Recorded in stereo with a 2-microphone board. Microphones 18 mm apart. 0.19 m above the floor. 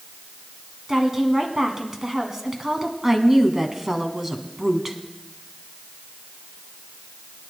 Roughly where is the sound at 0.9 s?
Right.